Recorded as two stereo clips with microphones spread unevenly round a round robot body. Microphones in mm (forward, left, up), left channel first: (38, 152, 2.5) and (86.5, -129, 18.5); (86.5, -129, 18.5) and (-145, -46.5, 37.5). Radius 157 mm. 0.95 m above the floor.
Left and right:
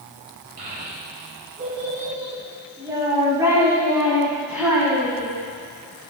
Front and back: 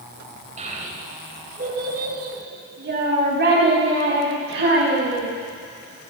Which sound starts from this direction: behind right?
A child speaking, at 0.6 s.